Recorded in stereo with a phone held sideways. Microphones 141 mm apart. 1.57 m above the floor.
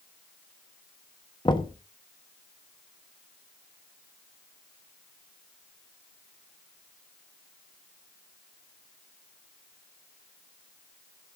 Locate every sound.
1.4 s knocking: 35° left (ahead or behind), 1.4 m